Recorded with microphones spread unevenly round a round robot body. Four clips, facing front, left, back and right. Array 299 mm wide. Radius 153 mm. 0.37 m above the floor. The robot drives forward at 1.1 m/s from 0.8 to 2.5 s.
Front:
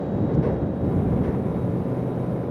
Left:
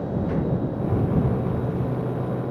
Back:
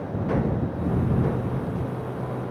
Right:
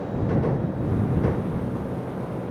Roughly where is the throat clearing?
I don't hear throat clearing.